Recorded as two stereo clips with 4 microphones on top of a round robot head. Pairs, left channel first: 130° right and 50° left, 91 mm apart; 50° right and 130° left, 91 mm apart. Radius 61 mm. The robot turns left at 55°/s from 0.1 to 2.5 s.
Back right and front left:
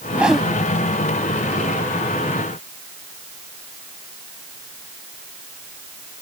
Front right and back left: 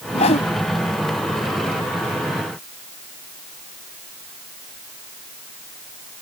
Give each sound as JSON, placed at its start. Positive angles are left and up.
{"t": 0.1, "sound": "a whoosh", "azimuth_deg": -25}